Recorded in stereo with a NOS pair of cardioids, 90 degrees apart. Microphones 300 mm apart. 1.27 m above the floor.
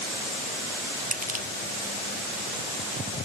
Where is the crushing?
30° right, 1.0 m.